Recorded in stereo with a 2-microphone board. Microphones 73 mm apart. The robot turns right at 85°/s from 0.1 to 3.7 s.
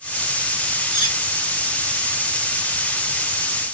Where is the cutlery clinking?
75° left (ahead or behind), 2.5 m; by 1.2 s 80° left, 2.5 m.